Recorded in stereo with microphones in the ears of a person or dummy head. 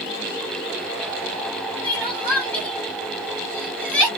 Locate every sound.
1.8 s crying: 5° left (ahead or behind), 1.3 m